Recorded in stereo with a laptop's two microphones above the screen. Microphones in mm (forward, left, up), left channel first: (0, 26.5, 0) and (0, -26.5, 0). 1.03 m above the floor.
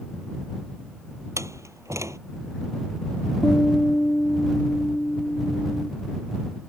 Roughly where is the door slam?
Right.